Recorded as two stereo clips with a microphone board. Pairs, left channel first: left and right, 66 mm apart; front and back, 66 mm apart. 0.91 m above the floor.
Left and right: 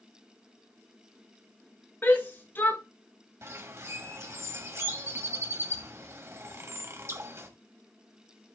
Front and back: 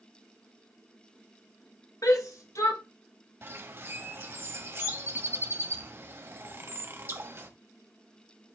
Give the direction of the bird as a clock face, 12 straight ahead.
4 o'clock.